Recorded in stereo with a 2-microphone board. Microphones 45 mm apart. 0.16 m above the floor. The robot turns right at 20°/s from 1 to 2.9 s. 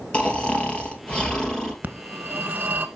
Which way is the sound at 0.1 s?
25° left (ahead or behind).